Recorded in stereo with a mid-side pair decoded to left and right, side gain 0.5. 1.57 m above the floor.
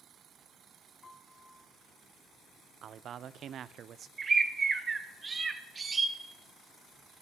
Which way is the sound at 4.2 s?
35° right.